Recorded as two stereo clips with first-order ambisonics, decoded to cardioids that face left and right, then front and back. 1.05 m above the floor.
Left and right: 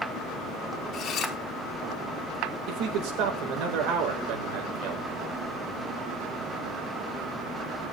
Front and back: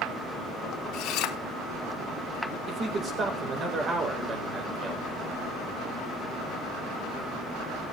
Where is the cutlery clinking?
35° left, 1.6 m.